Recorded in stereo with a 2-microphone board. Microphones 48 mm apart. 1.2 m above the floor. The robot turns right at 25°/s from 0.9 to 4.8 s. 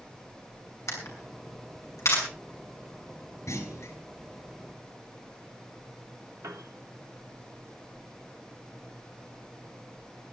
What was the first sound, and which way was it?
A camera shutter, 75° left (ahead or behind).